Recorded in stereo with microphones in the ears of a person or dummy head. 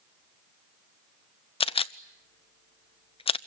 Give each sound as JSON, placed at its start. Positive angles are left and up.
{"t": 1.6, "sound": "a camera shutter", "side_deg": 25, "distance_m": 0.5}